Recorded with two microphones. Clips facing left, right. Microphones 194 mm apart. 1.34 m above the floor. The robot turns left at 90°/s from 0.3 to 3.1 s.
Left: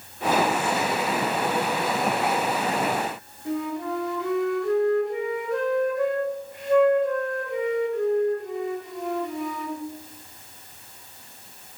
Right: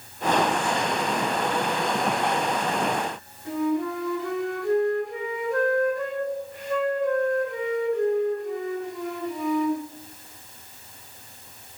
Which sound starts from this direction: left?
A flute, at 3.5 s.